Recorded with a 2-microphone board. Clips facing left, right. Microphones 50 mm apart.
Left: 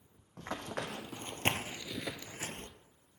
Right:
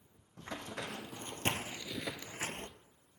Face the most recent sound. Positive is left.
turn(degrees=-45)  # may be behind; listen again after turning